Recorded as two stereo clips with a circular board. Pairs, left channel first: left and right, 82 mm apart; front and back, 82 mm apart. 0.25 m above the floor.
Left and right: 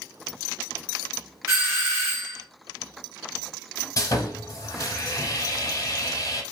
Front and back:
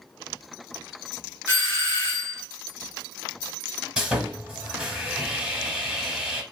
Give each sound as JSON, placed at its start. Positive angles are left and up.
{"t": 1.5, "sound": "a doorbell", "azimuth_deg": -130, "distance_m": 1.6}
{"t": 4.0, "sound": "sawing", "azimuth_deg": 105, "distance_m": 0.7}